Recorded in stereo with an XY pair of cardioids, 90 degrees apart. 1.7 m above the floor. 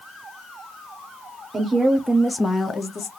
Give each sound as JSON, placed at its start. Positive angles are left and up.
{"t": 1.5, "sound": "a woman speaking", "azimuth_deg": -35, "distance_m": 0.9}